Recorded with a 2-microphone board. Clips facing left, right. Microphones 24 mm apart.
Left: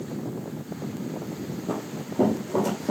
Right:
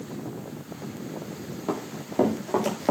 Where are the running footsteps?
60° right (ahead or behind), 8.5 m; by 2.9 s 65° right (ahead or behind), 8 m.